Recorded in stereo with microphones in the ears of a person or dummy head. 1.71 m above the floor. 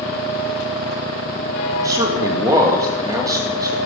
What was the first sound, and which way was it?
A man speaking, 20° right (ahead or behind).